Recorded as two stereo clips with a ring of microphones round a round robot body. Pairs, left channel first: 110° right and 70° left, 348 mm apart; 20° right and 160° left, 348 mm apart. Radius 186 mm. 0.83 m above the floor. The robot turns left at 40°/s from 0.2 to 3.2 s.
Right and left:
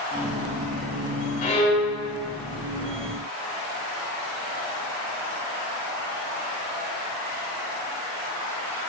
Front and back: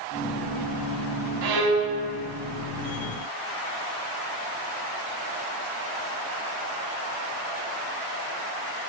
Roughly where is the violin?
Behind.